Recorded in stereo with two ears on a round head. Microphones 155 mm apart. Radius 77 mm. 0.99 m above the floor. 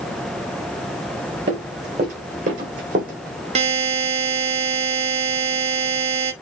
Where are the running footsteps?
35° right (ahead or behind), 2.5 m; by 3.5 s 55° right (ahead or behind), 2 m.